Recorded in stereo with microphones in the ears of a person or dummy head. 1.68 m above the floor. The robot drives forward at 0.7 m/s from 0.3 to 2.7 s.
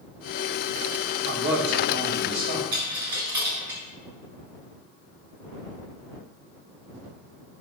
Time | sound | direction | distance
1.3 | a man speaking | 70° right (ahead or behind) | 2.5 m
2.7 | a dropped coin | 25° right (ahead or behind) | 4 m